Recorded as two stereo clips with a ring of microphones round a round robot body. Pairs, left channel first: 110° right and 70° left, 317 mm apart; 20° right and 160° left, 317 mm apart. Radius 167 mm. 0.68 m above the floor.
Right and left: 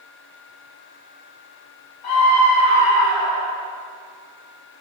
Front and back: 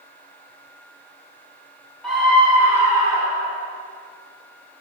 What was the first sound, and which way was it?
A scream, 110° right.